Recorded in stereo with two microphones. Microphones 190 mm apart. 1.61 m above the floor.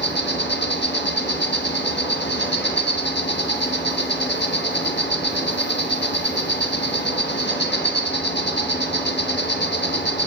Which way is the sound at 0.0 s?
65° left (ahead or behind).